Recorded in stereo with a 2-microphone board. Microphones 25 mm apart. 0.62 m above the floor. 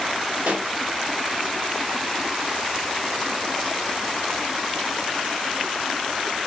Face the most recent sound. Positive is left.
turn(degrees=-55)  # may be behind; listen again after turning